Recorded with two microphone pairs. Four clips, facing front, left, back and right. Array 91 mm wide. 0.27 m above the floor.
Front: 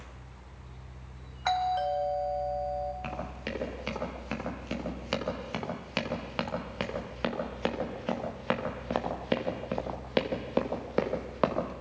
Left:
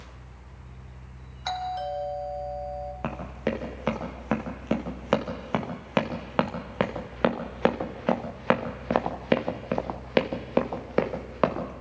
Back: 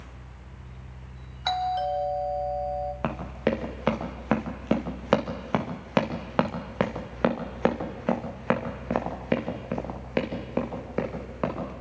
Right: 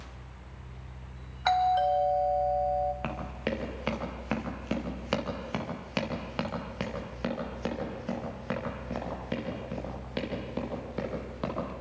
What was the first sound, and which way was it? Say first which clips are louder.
A doorbell: right 6 dB, back 1 dB; 90° right.